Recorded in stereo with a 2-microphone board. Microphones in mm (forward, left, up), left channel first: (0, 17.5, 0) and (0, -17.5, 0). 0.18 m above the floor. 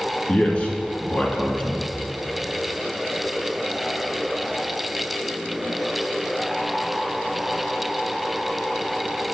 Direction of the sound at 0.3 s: 30° left (ahead or behind).